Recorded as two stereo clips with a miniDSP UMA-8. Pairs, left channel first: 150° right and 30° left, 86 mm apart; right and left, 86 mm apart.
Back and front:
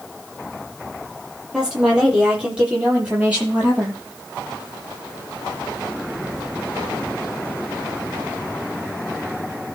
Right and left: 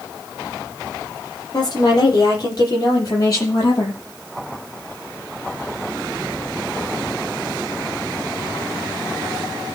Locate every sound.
1.5 s a woman speaking: 50° right, 8 m; by 4.0 s 40° right, 8.5 m